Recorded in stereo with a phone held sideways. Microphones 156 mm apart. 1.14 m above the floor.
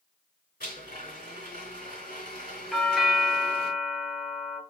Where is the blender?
70° left (ahead or behind), 2.5 m.